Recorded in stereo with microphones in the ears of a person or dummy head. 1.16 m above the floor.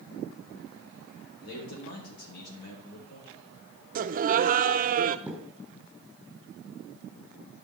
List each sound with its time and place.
1.4 s a man speaking: 65° left (ahead or behind), 3 m
4.0 s laughter: 45° right (ahead or behind), 0.5 m
5.3 s a thud: centre (ahead or behind), 5.5 m